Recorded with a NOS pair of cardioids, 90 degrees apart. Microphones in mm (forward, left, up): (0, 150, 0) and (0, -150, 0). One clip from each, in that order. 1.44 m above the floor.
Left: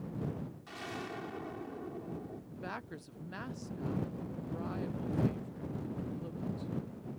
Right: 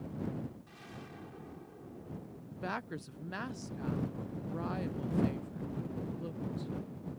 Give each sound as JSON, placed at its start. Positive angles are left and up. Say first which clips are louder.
{"t": 0.7, "sound": "an explosion", "louder": "left 9 dB", "azimuth_deg": 65}
{"t": 2.5, "sound": "a woman speaking", "louder": "right 6 dB", "azimuth_deg": -20}